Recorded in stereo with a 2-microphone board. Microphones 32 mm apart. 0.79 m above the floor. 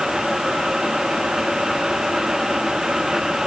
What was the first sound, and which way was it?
Only background noise.